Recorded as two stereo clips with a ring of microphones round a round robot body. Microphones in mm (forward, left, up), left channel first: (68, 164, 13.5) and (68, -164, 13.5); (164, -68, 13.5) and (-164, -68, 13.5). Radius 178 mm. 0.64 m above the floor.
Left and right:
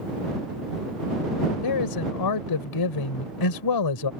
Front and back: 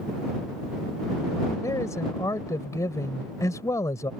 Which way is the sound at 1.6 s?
80° left.